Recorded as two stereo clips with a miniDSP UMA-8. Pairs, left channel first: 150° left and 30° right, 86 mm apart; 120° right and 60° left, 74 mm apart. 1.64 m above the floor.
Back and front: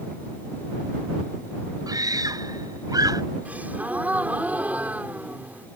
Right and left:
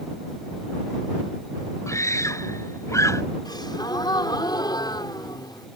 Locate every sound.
1.9 s a scream: 70° right
3.5 s a gasp: 100° right